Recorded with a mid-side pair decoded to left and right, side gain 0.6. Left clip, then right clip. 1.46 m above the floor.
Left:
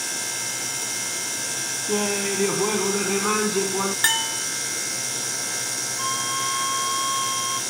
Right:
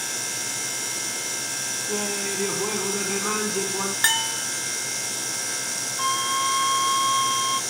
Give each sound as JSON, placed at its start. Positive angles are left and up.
{"t": 1.9, "sound": "laughter", "azimuth_deg": 25}
{"t": 4.0, "sound": "a bell", "azimuth_deg": 0}
{"t": 6.0, "sound": "a flute", "azimuth_deg": -25}